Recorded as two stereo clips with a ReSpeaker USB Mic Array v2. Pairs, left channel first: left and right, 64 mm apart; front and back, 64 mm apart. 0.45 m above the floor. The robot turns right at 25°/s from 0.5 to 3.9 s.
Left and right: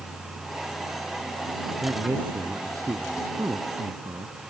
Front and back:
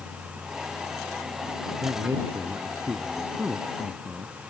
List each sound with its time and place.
1.8 s a man speaking: 150° right; by 4.3 s 100° right